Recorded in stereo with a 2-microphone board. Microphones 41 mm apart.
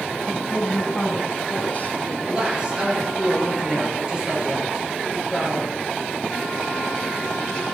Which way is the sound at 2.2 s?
20° right (ahead or behind).